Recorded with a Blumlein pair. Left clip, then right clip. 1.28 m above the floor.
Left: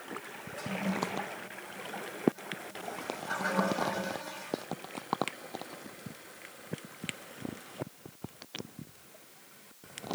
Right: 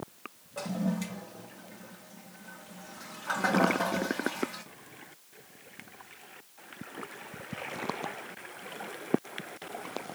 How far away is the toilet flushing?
About 0.6 m.